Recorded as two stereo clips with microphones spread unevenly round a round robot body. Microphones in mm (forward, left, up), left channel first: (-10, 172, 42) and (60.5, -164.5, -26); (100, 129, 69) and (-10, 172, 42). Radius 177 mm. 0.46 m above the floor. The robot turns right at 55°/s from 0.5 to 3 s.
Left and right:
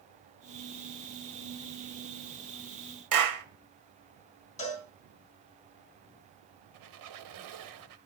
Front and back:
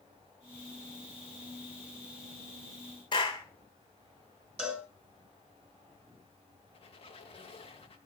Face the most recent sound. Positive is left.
turn(degrees=-70)